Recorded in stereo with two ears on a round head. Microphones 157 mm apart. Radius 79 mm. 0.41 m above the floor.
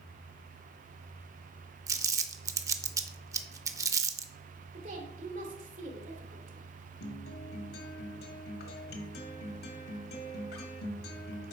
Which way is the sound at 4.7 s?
45° right (ahead or behind).